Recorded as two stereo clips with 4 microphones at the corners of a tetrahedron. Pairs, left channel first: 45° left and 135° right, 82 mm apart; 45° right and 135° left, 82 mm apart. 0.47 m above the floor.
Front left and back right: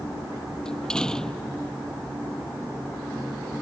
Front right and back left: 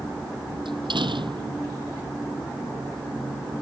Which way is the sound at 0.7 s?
125° left.